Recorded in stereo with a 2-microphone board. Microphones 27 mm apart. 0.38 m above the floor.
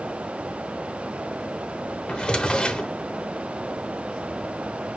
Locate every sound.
2.1 s a drawer: 40° left (ahead or behind), 0.7 m